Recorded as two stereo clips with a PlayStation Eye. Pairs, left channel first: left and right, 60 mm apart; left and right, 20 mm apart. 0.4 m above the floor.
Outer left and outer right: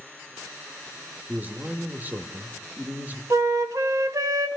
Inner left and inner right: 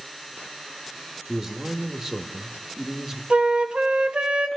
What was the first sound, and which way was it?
A man speaking, 30° right (ahead or behind).